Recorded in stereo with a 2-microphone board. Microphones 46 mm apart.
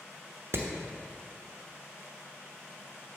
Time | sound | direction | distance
0.5 | hammering | 60° right (ahead or behind) | 1.0 m